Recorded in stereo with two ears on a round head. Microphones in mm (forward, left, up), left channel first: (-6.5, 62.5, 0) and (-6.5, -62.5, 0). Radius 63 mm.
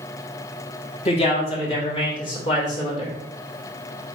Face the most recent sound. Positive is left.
turn(degrees=40)  # may be behind; listen again after turning